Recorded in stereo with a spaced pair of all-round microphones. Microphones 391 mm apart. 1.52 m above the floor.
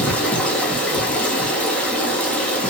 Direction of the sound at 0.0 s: 5° left (ahead or behind).